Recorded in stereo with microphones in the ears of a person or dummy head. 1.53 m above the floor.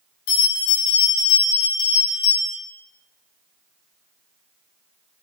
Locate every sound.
0.3 s a bell: 75° left (ahead or behind), 1.6 m